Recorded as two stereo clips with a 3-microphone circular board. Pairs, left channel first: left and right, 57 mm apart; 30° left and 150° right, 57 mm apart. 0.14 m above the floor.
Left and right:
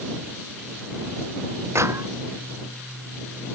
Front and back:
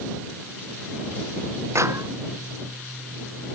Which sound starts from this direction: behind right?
A clap, at 1.8 s.